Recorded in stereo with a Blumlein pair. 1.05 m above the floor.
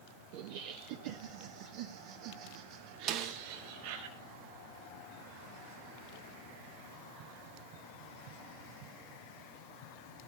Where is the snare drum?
35° right, 1.1 m.